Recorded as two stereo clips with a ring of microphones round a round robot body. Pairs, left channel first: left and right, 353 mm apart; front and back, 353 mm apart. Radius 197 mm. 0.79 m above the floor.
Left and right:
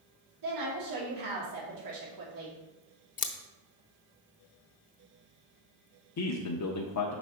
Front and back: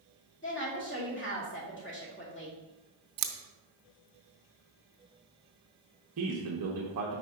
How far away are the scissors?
About 0.6 m.